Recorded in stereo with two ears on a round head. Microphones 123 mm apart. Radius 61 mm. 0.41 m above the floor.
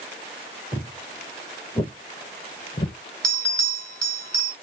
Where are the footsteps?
5° left (ahead or behind), 1.7 m; by 3.0 s 45° left (ahead or behind), 0.9 m.